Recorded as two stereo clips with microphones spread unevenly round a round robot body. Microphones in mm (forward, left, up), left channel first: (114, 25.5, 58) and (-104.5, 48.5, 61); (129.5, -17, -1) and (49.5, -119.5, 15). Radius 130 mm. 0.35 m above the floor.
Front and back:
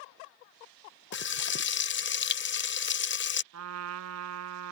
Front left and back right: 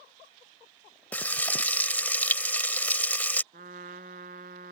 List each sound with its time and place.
1.1 s frying: 20° right
3.5 s a trumpet: straight behind